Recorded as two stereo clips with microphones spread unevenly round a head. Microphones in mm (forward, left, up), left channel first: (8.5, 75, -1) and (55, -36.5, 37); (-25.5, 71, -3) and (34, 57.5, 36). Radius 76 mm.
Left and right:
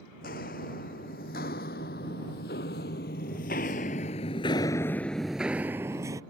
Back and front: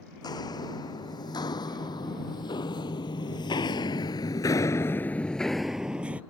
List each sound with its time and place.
0.2 s footsteps: 145° left; by 6.2 s 35° right